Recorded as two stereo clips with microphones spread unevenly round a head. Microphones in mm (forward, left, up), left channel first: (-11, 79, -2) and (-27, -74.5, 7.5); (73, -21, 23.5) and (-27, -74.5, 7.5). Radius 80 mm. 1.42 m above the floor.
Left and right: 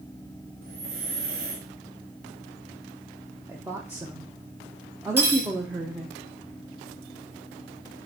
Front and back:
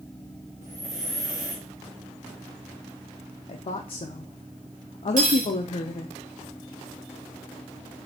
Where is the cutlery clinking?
170° right, 1.3 m.